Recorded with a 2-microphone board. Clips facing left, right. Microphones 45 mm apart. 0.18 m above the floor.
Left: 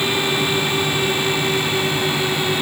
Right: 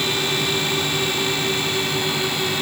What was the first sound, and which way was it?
Only background noise.